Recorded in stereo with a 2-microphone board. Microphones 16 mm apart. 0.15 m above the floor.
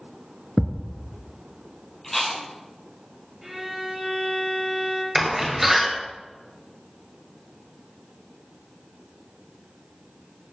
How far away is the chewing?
About 2.5 m.